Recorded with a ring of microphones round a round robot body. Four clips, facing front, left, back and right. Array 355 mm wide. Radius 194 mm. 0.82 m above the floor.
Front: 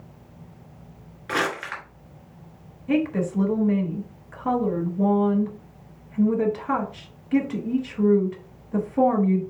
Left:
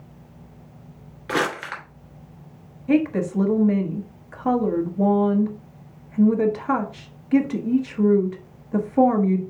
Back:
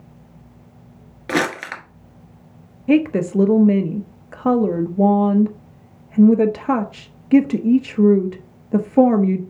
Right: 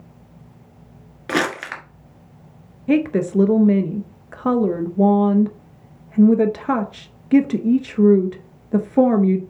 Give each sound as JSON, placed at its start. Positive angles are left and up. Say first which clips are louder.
{"t": 1.3, "sound": "crumpling", "louder": "right 2 dB, back 5 dB", "azimuth_deg": -140, "distance_m": 1.4}
{"t": 2.9, "sound": "a woman speaking", "louder": "right 2 dB, back 7 dB", "azimuth_deg": -140, "distance_m": 1.0}